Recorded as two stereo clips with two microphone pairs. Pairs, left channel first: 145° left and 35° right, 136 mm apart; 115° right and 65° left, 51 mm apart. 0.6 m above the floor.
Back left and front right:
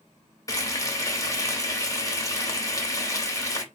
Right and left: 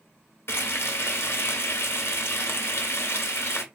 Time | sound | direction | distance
0.5 | frying | 150° right | 1.5 m